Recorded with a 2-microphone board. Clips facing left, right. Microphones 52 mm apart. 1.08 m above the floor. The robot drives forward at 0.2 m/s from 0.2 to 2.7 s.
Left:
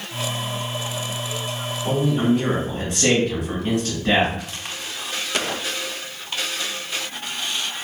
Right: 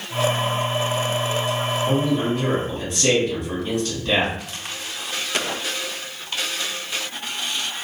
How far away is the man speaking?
About 1.4 m.